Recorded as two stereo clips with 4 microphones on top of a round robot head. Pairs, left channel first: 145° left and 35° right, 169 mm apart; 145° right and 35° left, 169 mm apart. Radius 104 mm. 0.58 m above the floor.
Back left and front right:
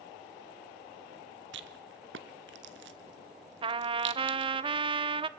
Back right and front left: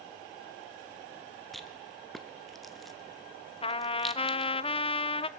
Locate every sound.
1.5 s a rattle: 55° right, 1.5 m
3.6 s a trumpet: 90° right, 0.9 m